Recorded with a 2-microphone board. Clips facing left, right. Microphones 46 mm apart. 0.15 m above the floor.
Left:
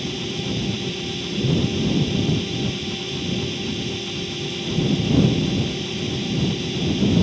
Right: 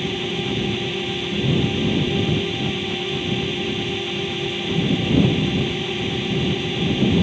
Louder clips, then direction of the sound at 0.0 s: Right 3 dB; 30° right (ahead or behind).